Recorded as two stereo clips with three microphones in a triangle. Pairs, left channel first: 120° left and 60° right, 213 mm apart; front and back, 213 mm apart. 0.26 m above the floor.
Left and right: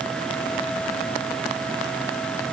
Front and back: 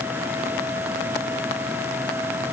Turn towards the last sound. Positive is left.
No sound to turn to.